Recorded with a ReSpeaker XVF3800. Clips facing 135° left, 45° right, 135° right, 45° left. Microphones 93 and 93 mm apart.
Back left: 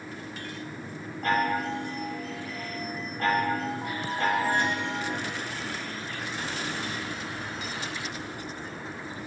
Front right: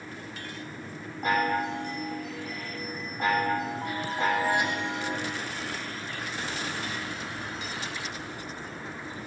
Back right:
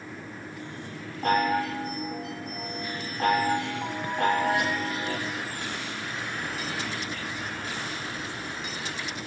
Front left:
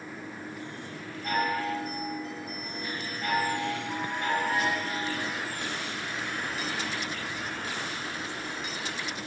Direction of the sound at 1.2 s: 125° right.